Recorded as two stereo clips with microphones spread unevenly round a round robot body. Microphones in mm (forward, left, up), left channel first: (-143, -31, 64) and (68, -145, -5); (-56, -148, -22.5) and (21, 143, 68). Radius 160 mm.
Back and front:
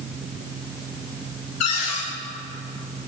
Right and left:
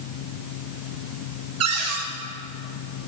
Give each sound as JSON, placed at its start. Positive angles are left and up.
{"t": 1.6, "sound": "a cupboard door", "azimuth_deg": 120, "distance_m": 1.8}